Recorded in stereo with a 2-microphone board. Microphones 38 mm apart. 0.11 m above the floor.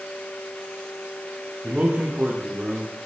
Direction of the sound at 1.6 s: 35° right (ahead or behind).